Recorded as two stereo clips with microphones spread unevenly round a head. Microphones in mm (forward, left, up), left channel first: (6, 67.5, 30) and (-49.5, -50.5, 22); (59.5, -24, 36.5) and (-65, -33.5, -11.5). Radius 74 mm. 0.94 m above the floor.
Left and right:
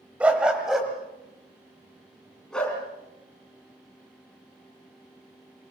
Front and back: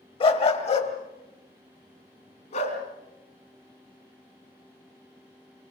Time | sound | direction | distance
0.2 | a dog barking | 35° right | 1.8 m